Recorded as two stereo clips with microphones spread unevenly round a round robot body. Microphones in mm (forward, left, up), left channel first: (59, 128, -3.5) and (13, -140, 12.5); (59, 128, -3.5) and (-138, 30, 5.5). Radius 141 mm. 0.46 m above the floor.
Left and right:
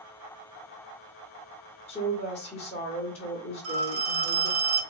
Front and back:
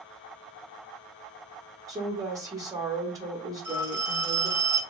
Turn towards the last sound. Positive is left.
turn(degrees=-70)